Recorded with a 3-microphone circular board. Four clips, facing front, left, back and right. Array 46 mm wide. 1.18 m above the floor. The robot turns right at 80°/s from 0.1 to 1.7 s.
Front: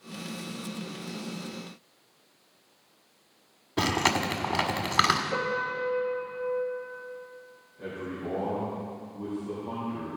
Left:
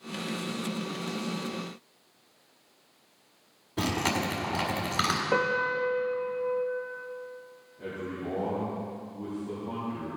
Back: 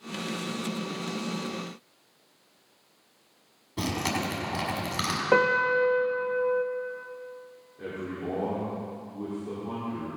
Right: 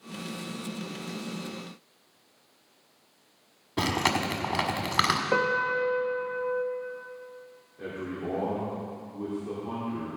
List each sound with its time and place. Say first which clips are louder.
3.8 s chewing: right 2 dB, front 4 dB; 40° right, 1.5 m
5.3 s a piano: even, back 7 dB; straight behind, 0.6 m
7.8 s a man speaking: right 1 dB, back 1 dB; 125° right, 4 m